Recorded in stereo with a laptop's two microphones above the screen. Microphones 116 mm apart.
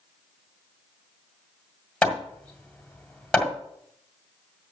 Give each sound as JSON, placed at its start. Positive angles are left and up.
{"t": 2.0, "sound": "hammering", "side_deg": 5, "distance_m": 1.7}